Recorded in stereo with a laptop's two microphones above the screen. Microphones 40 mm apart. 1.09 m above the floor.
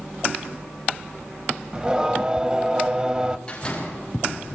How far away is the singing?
About 2.5 m.